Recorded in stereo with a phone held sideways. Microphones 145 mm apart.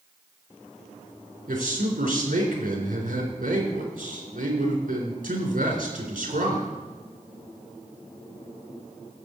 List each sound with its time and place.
1.5 s a man speaking: 70° right (ahead or behind), 3.5 m